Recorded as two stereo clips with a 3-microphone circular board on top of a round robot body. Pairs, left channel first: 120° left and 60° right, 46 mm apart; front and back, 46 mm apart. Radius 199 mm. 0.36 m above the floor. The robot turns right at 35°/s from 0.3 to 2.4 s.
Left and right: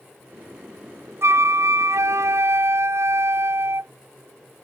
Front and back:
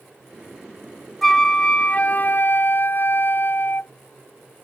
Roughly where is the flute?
Right.